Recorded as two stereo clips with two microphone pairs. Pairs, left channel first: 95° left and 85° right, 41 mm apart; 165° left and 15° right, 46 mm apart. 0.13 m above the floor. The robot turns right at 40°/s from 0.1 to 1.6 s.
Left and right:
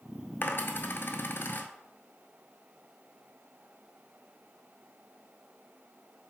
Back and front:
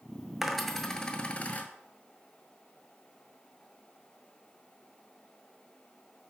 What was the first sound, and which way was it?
A dropped coin, 70° left.